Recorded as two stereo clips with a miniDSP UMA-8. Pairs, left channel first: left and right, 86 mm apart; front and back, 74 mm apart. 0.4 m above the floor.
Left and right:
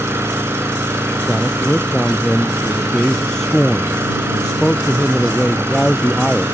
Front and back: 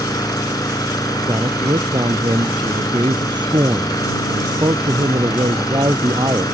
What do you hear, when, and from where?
0.0 s an engine running: 30° right
1.3 s a man speaking: 175° left